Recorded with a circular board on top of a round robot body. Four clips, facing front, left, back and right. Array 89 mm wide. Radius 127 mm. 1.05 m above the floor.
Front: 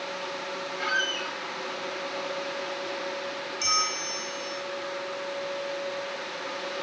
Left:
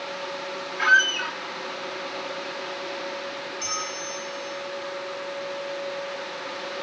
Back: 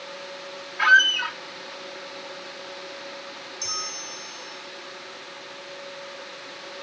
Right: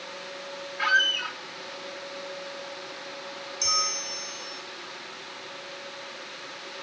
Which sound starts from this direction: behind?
A squeak, at 0.8 s.